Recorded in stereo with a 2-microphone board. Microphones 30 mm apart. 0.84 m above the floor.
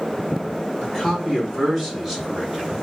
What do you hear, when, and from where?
0.8 s a man speaking: 40° left (ahead or behind), 2 m; by 2.7 s 10° left (ahead or behind), 2.5 m